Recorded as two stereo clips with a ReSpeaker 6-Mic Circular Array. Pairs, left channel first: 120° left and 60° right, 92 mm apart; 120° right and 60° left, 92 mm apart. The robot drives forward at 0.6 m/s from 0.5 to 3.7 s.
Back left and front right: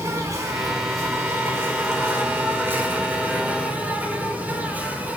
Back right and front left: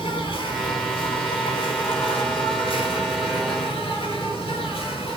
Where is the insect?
110° right, 4.5 m; by 5.2 s 130° right, 5.5 m.